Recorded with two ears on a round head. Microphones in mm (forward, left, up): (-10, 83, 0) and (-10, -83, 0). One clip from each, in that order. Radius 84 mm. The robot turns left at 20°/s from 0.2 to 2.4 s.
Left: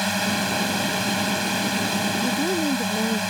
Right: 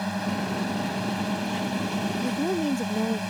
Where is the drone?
85° left; by 3.3 s 40° left.